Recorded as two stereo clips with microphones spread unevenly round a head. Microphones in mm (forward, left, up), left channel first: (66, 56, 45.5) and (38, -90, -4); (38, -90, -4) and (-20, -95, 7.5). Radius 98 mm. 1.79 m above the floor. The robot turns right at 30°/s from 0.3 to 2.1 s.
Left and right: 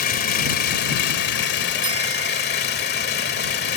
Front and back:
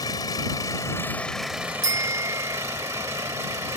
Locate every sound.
0.0 s an engine running: 65° left; by 3.8 s 115° left
1.8 s a bicycle bell: 170° right; by 2.6 s 165° right